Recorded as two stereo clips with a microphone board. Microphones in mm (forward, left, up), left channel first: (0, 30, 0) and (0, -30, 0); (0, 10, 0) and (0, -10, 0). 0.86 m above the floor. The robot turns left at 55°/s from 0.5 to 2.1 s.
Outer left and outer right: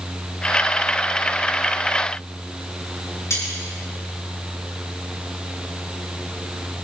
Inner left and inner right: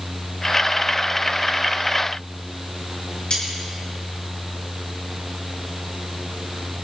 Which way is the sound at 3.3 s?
60° left (ahead or behind).